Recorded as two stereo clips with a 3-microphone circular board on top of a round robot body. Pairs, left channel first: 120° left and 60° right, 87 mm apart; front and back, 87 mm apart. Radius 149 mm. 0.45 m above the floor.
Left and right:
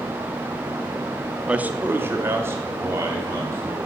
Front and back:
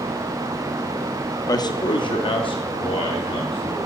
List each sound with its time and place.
1.5 s a man speaking: 10° left, 0.9 m; by 3.9 s straight ahead, 4.5 m